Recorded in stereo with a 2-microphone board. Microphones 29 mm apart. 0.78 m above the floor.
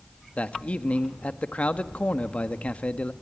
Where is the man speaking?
50° left (ahead or behind), 1.3 m.